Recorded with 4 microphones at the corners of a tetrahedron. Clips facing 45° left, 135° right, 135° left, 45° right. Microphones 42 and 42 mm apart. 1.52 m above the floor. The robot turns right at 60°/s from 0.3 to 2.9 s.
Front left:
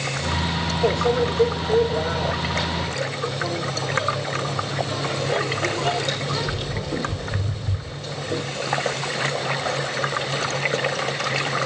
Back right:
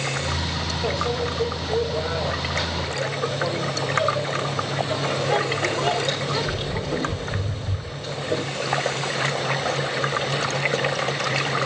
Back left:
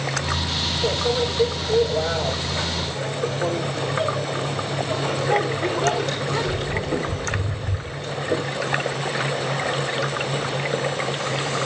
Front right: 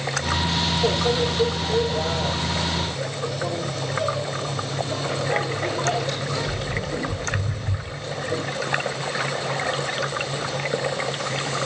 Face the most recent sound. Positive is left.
turn(degrees=145)